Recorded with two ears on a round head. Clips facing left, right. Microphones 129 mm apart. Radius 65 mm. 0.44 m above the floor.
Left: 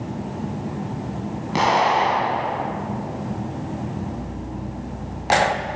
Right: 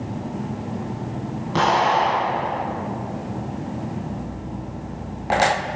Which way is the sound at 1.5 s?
15° left (ahead or behind).